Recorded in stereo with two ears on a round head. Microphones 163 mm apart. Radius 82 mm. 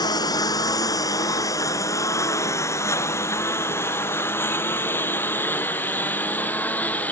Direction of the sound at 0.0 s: 20° left (ahead or behind).